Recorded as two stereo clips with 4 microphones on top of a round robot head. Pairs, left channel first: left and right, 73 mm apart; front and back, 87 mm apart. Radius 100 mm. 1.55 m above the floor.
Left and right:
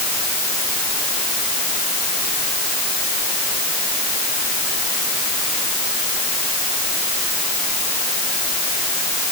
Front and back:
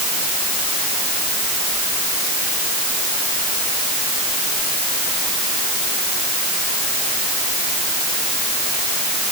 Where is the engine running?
I don't hear an engine running.